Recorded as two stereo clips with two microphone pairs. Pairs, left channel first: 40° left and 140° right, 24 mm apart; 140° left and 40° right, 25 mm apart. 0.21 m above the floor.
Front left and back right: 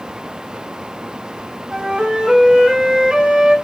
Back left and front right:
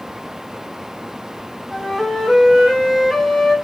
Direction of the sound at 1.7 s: 140° right.